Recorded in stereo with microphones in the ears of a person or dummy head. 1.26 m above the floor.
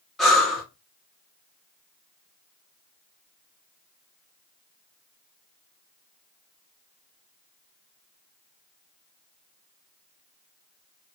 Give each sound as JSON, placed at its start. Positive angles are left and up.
{"t": 0.2, "sound": "breathing", "side_deg": 5, "distance_m": 0.8}